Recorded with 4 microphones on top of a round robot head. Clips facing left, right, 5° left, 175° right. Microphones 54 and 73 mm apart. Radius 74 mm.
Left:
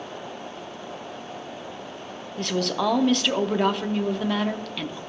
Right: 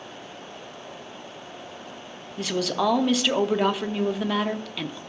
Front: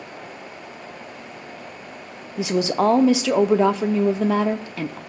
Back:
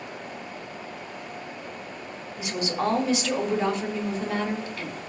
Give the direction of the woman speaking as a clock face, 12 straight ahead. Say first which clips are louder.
Even, front 8 dB; 12 o'clock.